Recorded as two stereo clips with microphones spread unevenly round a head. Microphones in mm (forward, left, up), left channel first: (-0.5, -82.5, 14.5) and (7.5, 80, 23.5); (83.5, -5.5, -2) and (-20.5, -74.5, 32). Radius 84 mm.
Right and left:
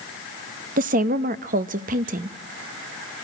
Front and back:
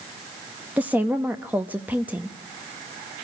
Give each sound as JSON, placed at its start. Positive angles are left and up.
{"t": 0.8, "sound": "a woman speaking", "azimuth_deg": 130, "distance_m": 0.8}